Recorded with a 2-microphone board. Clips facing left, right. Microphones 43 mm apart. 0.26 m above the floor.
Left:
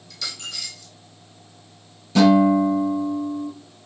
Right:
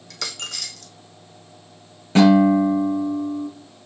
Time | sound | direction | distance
0.1 | a dropped coin | 65° right (ahead or behind) | 1.1 m
2.1 | a guitar | 45° right (ahead or behind) | 3.5 m